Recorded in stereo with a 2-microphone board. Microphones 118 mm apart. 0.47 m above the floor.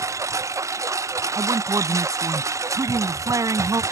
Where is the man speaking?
30° right (ahead or behind).